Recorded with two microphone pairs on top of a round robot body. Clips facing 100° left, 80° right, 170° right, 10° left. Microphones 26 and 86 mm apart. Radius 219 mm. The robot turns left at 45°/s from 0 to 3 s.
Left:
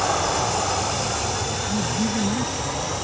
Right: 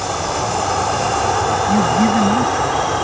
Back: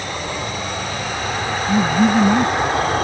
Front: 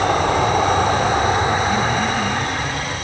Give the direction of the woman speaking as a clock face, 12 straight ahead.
4 o'clock.